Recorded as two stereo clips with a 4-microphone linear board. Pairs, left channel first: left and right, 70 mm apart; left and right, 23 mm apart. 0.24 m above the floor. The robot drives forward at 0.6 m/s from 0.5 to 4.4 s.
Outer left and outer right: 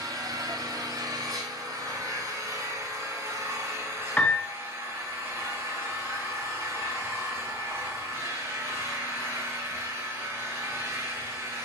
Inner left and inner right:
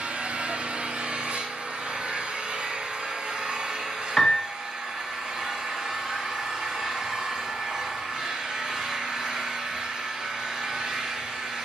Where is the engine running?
75° right (ahead or behind), 2.5 m; by 11.7 s 40° right (ahead or behind), 3.5 m.